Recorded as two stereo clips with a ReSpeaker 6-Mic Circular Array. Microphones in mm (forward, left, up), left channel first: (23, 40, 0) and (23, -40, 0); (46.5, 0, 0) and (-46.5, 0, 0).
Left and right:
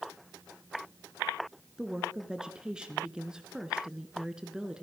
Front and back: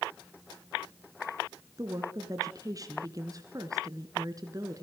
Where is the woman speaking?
165° right, 1.7 m.